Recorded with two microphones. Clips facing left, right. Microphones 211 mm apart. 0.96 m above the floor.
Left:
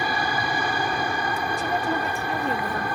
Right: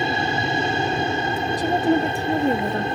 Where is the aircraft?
25° right (ahead or behind).